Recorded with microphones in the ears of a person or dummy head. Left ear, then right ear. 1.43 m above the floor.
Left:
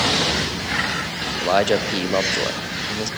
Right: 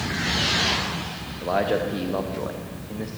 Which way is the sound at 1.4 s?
85° left.